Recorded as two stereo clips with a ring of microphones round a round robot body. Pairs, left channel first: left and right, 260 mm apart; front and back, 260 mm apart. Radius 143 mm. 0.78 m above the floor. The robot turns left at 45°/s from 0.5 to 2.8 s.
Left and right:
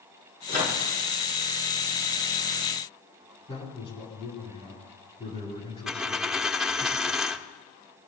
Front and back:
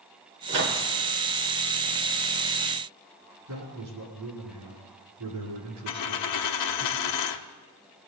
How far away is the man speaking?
About 9 m.